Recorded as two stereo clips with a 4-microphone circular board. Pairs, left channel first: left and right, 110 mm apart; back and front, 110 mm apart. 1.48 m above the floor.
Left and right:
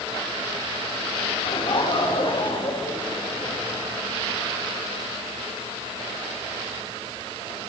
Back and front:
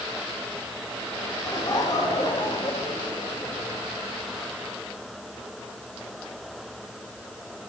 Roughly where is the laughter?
Behind left.